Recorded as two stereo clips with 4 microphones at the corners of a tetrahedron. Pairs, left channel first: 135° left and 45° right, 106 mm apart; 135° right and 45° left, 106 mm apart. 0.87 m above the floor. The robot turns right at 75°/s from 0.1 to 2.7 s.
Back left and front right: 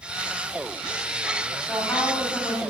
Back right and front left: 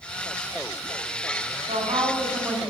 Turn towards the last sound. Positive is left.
turn(degrees=115)